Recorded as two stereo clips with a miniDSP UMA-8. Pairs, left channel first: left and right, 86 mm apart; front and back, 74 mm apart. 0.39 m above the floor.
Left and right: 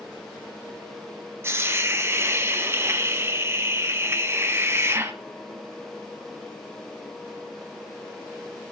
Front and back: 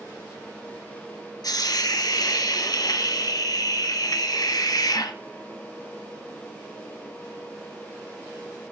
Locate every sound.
1.4 s a hiss: 30° right, 1.2 m